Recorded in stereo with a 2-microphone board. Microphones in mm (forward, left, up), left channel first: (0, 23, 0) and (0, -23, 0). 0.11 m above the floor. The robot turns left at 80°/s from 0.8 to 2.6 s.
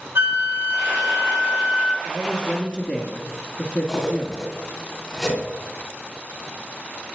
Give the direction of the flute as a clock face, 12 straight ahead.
2 o'clock.